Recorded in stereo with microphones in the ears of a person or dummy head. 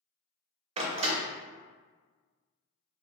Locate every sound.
0.8 s a door slam: 30° right (ahead or behind), 0.7 m